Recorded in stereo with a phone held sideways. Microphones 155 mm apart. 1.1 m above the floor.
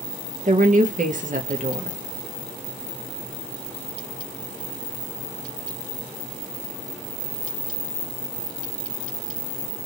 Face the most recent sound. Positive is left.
turn(degrees=-60)  # may be behind; listen again after turning